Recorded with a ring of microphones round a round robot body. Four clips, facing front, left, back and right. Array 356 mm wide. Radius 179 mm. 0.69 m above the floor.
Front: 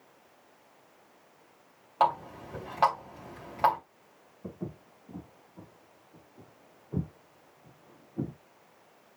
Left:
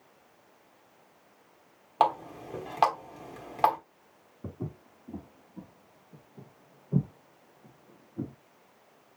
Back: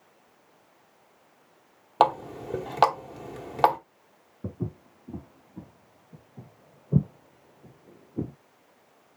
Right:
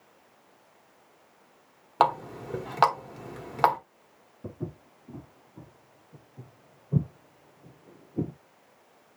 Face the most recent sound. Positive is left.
turn(degrees=-120)